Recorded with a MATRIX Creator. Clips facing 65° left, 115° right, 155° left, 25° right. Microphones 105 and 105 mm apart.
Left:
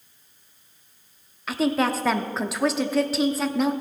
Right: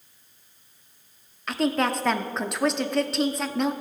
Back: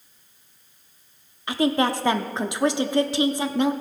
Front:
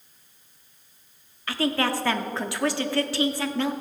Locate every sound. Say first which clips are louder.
1.5 s a woman speaking: left 1 dB, back 4 dB; 150° left, 0.6 m